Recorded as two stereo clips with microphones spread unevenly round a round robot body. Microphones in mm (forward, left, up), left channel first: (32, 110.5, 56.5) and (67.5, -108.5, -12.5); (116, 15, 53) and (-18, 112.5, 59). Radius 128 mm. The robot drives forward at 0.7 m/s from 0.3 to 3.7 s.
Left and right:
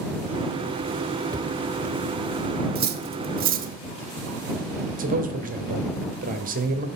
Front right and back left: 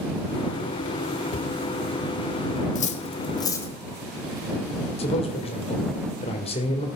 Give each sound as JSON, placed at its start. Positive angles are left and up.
{"t": 1.3, "sound": "a cupboard door", "azimuth_deg": -30, "distance_m": 1.1}
{"t": 2.8, "sound": "cutlery clinking", "azimuth_deg": -70, "distance_m": 1.1}
{"t": 5.0, "sound": "a man speaking", "azimuth_deg": -80, "distance_m": 1.9}